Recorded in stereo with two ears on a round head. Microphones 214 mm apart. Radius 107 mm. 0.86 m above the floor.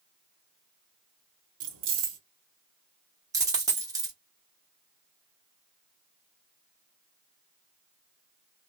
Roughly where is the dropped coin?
Centre.